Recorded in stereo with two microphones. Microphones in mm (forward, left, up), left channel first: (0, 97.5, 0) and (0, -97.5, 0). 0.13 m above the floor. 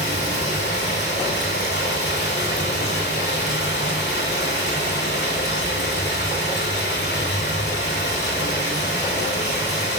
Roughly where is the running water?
Left.